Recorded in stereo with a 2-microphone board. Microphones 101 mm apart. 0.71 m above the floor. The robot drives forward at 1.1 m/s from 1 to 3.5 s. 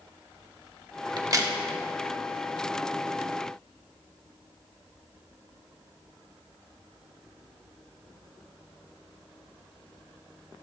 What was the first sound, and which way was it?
A crack, 45° right (ahead or behind).